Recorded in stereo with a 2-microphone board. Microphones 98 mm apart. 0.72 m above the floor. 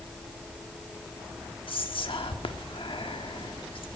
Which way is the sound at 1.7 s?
60° left (ahead or behind).